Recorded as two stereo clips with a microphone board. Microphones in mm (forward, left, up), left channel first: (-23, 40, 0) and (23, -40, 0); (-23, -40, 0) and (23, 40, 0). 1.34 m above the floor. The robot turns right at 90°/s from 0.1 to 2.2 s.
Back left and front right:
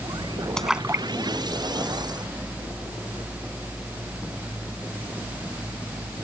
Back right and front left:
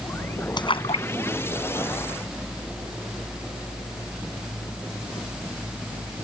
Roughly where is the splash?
Behind.